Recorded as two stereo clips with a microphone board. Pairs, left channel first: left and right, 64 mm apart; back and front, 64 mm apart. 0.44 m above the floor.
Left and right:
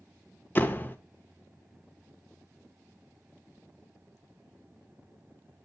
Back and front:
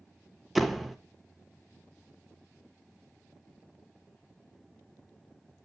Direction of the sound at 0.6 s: 85° left.